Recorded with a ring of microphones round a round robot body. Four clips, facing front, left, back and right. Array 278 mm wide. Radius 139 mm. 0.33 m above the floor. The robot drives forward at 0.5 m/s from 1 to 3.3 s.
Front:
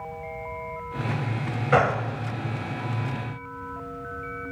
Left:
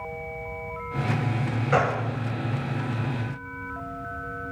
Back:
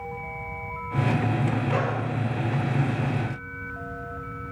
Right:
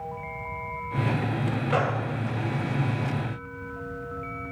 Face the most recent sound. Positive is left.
turn(degrees=135)